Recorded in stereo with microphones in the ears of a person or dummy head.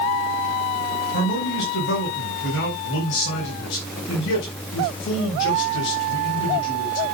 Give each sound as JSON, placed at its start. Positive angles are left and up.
{"t": 1.1, "sound": "a man speaking", "side_deg": 75, "distance_m": 5.0}